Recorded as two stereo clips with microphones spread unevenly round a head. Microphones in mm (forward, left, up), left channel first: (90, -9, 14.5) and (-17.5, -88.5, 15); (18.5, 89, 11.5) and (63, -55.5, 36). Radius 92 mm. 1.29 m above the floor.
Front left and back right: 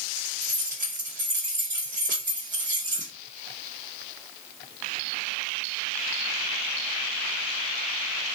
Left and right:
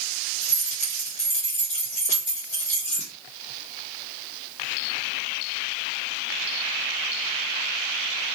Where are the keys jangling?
165° left, 1.0 m.